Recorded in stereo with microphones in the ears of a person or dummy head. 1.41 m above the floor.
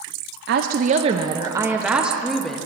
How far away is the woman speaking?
About 0.6 m.